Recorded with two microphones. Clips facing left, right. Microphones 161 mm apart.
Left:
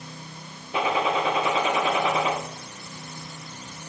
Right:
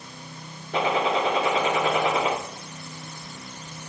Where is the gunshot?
70° right (ahead or behind), 6 m.